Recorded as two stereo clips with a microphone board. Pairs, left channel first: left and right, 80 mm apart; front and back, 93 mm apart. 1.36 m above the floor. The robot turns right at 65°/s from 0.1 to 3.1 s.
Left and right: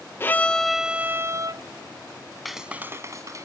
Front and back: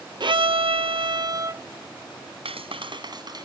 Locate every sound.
0.2 s a violin: 150° left; by 1.6 s 120° right
2.5 s a clap: straight behind; by 3.5 s 140° right